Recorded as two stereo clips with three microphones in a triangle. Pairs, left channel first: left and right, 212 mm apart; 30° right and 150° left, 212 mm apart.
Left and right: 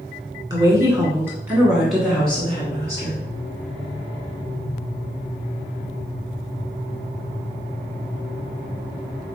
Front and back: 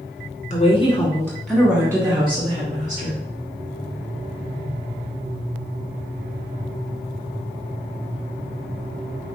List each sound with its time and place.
0.5 s a woman speaking: 35° right, 1.7 m; by 3.2 s 160° left, 2 m